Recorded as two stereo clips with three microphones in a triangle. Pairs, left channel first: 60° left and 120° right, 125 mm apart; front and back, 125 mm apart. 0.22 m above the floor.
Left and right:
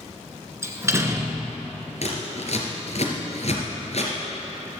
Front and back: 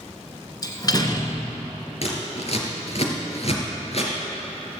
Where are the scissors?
30° left, 3 m.